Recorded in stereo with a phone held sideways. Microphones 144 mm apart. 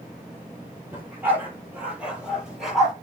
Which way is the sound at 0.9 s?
15° right (ahead or behind).